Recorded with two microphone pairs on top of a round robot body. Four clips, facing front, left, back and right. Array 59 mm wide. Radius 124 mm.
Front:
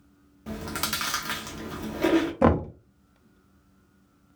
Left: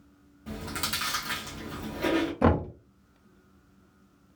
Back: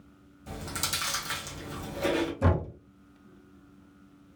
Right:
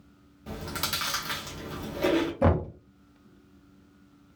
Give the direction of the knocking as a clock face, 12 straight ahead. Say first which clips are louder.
Left 3 dB, front 7 dB; 12 o'clock.